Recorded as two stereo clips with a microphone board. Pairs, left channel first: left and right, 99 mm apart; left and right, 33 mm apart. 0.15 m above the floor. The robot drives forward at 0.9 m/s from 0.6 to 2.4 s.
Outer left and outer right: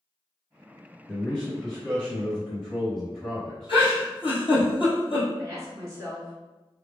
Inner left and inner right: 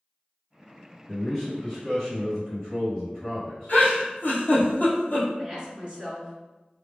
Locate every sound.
1.1 s a man speaking: 10° left (ahead or behind), 1.5 m; by 4.7 s 5° left (ahead or behind), 2.5 m
3.7 s a giggle: 60° left (ahead or behind), 1.2 m
5.4 s a woman speaking: 25° right (ahead or behind), 1.7 m